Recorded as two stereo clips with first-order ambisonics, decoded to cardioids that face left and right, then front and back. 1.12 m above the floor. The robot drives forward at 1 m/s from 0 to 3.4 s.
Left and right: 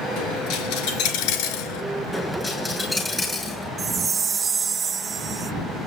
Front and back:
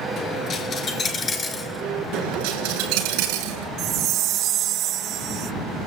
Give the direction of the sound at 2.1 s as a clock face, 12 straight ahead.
6 o'clock.